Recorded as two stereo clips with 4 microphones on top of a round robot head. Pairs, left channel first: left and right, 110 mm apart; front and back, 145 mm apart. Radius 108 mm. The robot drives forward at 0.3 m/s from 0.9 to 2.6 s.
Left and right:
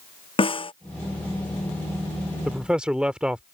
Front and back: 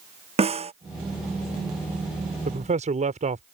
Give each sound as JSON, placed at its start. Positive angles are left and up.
{"t": 0.4, "sound": "a snare drum", "azimuth_deg": 130}
{"t": 2.5, "sound": "a man speaking", "azimuth_deg": -170}